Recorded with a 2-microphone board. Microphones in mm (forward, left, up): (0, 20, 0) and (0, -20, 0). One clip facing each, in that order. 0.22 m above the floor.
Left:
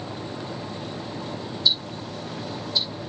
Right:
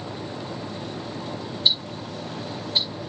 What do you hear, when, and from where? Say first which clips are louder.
1.6 s ticking: right 1 dB; 40° right (ahead or behind), 5 m